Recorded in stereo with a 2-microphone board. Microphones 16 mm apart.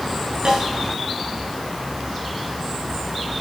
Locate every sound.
0.5 s a snare drum: 55° right (ahead or behind), 7.5 m